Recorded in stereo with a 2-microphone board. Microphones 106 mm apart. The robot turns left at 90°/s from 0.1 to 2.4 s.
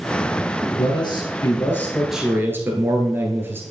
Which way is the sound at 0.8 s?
115° left.